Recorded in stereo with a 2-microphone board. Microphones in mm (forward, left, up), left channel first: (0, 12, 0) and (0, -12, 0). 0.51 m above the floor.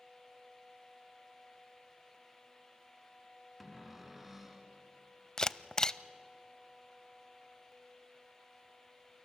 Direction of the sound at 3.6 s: 10° right (ahead or behind).